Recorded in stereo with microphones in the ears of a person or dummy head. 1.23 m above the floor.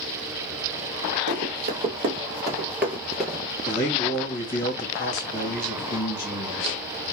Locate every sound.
1.3 s running footsteps: 45° right (ahead or behind), 1.9 m; by 3.4 s 5° left (ahead or behind), 1.5 m
3.7 s a man speaking: 45° left (ahead or behind), 1.9 m